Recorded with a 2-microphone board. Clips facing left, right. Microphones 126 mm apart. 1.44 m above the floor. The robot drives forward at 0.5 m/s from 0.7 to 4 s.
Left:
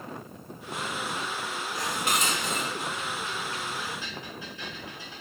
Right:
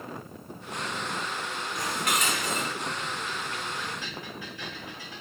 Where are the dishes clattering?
30° left (ahead or behind), 3.5 m; by 5.2 s 25° left (ahead or behind), 4.5 m.